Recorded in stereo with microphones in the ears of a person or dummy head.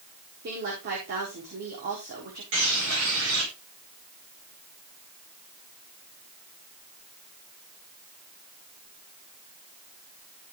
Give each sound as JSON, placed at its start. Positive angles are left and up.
{"t": 0.4, "sound": "a woman speaking", "side_deg": -50, "distance_m": 4.5}
{"t": 2.5, "sound": "a bird", "side_deg": -70, "distance_m": 7.5}